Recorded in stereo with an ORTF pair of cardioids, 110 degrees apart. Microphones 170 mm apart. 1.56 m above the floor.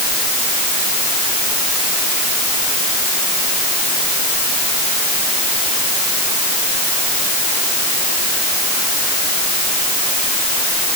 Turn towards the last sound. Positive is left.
No sound to turn to.